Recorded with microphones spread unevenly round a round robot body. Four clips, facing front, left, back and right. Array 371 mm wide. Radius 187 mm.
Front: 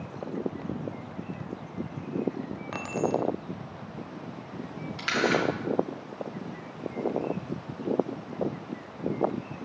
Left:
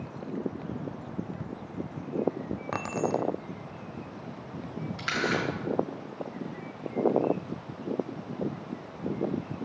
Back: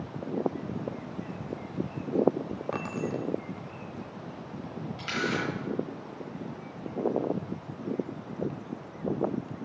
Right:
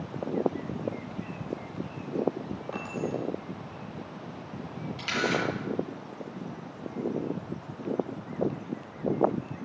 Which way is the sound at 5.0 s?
Straight ahead.